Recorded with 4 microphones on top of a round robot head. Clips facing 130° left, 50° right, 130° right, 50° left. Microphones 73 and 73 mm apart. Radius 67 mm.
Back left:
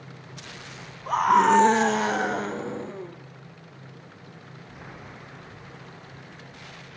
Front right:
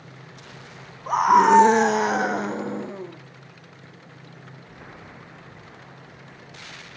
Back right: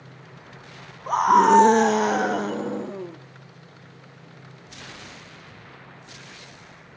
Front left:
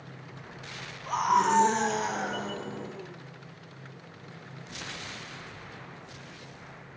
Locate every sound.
1.1 s a scream: 125° right, 0.8 m